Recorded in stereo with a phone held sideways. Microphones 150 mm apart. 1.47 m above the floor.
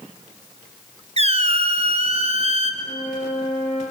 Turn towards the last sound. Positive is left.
turn(degrees=45)  # may be behind; listen again after turning